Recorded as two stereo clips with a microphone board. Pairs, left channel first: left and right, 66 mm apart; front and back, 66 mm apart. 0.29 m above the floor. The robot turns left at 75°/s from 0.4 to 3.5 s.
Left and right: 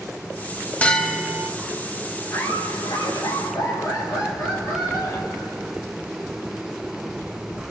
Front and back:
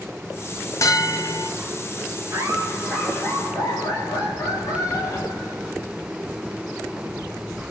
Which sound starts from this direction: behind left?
Laughter, at 2.3 s.